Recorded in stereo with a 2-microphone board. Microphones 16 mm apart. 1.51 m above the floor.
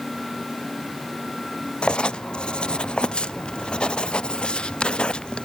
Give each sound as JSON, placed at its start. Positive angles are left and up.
{"t": 1.8, "sound": "writing", "side_deg": 75, "distance_m": 0.6}